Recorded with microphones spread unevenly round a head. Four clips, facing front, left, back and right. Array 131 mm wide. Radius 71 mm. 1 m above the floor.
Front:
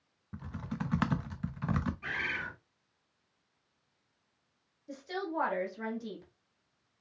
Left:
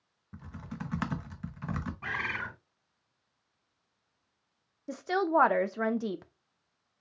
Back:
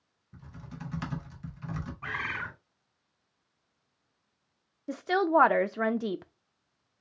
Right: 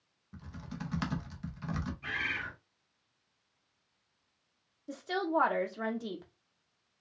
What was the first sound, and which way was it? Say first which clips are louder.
Typing on a keyboard: left 2 dB, front 7 dB; 15° left.